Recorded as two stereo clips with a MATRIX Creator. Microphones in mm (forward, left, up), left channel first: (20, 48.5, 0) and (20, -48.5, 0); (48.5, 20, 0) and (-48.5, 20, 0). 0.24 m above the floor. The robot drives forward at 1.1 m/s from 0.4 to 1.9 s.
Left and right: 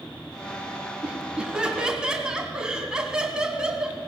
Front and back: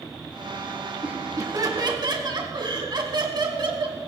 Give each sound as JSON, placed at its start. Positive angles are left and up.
{"t": 1.0, "sound": "laughter", "azimuth_deg": -150, "distance_m": 1.4}